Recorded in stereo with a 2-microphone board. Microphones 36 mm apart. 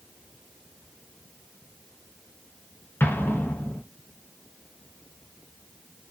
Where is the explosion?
70° left (ahead or behind), 0.6 m.